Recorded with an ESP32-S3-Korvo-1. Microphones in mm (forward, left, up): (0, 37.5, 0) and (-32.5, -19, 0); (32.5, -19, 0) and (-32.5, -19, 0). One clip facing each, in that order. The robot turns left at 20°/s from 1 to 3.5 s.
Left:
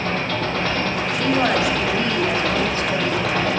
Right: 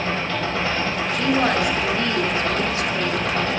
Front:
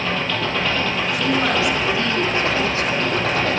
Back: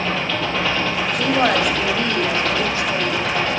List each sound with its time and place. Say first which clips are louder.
0.0 s an engine running: left 1 dB, even; 90° left, 4 m; by 3.6 s 40° left, 4 m
1.1 s a woman speaking: left 1 dB, back 3 dB; 140° left, 2.5 m; by 3.5 s 95° left, 2.5 m